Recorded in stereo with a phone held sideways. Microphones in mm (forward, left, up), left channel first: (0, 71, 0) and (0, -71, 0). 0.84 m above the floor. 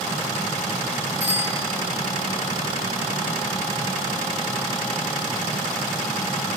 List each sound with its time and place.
1.2 s a bicycle bell: 75° left (ahead or behind), 8.5 m